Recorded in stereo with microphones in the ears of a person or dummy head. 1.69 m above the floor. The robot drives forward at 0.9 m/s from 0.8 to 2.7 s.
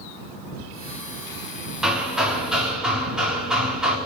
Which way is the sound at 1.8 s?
5° right (ahead or behind).